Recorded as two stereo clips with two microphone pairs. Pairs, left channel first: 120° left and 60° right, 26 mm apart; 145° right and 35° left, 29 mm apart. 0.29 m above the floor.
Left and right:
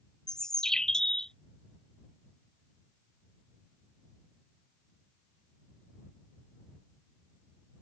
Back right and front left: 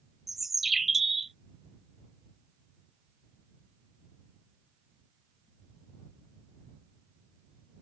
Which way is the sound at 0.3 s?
110° left.